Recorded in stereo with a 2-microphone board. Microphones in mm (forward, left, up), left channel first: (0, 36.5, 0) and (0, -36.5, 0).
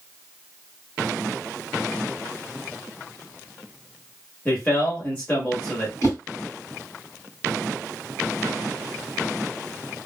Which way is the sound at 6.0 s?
45° left (ahead or behind).